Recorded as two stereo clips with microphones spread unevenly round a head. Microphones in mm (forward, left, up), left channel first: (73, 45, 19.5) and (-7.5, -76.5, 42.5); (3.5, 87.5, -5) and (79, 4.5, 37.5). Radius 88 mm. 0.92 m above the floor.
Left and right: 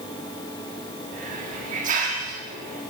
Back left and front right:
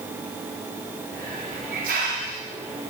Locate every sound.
1.1 s a hiss: 90° right, 2 m